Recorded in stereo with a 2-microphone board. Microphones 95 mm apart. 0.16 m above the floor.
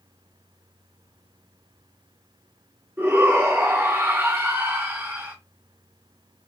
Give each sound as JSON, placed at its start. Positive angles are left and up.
{"t": 3.0, "sound": "a shout", "side_deg": -25, "distance_m": 1.9}